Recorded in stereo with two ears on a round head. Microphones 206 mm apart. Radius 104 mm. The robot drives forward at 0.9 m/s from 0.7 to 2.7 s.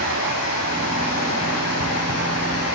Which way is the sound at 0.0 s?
80° left.